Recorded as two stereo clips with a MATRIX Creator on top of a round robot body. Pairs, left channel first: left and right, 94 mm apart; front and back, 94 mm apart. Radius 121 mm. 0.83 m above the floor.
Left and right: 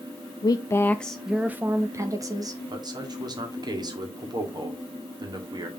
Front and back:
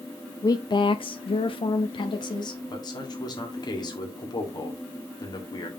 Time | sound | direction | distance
0.4 | a woman speaking | 50° left | 0.6 m
2.7 | a man speaking | 45° right | 1.9 m